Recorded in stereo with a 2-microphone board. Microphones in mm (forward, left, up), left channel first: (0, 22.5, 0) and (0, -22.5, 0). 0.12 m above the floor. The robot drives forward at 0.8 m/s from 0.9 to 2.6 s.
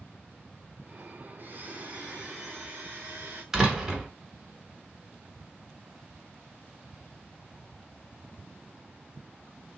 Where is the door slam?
10° right (ahead or behind), 1.1 m.